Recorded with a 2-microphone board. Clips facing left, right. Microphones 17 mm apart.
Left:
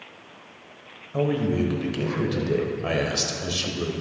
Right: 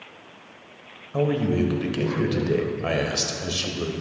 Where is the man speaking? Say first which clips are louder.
Right 1 dB; 10° right (ahead or behind), 0.9 m.